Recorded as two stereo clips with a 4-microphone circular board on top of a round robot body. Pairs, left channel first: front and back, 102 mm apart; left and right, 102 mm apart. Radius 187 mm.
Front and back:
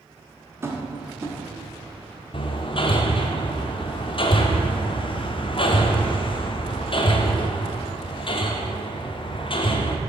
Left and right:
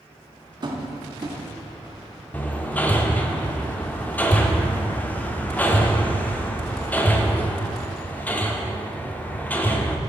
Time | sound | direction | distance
0.6 | tapping | 120° right | 1.5 m
2.3 | hammering | 20° left | 0.9 m